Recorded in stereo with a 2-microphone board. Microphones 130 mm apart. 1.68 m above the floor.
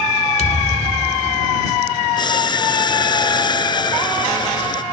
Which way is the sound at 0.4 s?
60° left (ahead or behind).